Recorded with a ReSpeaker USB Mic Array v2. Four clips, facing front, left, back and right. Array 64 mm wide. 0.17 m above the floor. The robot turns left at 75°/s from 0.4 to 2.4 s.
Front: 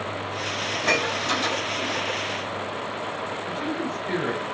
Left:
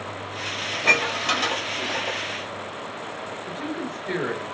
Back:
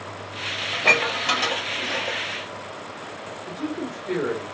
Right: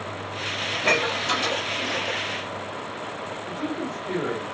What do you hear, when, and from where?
0.7 s dishes clattering: 170° right, 2.5 m; by 2.2 s 80° left, 2.5 m
3.5 s a woman speaking: 70° left, 3 m